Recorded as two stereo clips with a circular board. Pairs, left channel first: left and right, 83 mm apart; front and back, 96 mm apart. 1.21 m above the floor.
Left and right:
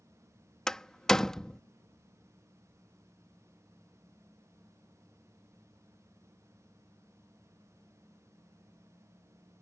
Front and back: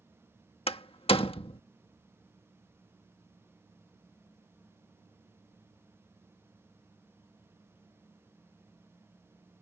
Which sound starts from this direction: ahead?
A door slam, at 0.7 s.